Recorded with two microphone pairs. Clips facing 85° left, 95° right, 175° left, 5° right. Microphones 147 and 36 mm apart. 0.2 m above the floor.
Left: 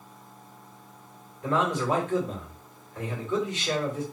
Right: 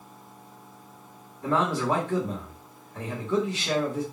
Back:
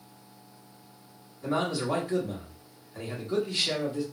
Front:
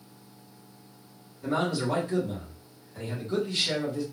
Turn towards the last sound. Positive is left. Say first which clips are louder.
# right 1 dB, front 1 dB
turn(degrees=-110)